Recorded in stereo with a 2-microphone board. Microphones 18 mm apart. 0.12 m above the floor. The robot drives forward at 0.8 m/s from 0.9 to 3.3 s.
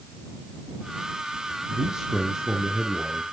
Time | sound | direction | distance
1.7 | a man speaking | 50° right (ahead or behind) | 2 m